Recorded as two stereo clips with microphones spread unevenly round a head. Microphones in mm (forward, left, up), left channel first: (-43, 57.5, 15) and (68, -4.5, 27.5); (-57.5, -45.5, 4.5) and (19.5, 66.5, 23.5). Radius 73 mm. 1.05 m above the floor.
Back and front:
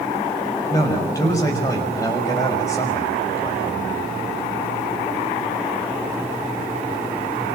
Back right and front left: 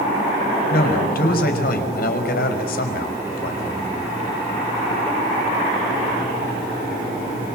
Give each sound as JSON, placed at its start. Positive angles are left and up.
{"t": 0.7, "sound": "a man speaking", "azimuth_deg": -140, "distance_m": 5.0}